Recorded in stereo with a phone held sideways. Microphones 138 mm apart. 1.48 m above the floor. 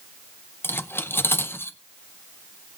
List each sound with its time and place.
0.6 s cutlery clinking: 15° left (ahead or behind), 0.5 m